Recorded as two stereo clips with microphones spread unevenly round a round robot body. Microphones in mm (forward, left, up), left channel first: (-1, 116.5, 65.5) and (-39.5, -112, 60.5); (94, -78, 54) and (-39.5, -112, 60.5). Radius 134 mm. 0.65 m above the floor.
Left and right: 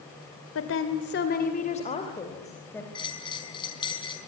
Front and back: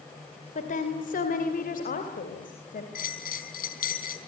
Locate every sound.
0.6 s a woman speaking: 55° left, 2.5 m; by 2.9 s straight ahead, 4 m
3.0 s a bell: 10° left, 4 m